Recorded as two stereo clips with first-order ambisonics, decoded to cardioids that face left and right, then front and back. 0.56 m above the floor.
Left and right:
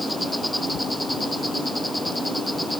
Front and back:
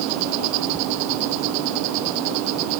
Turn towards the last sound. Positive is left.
turn(degrees=175)